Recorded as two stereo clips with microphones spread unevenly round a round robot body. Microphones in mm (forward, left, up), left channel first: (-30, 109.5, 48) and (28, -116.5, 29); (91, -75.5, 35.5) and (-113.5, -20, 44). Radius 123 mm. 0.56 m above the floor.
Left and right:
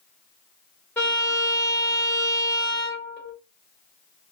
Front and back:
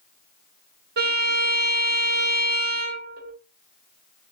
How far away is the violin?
About 1.7 m.